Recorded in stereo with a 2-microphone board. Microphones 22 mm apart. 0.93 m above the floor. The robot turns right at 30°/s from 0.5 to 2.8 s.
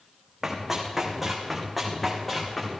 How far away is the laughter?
No laughter in this recording.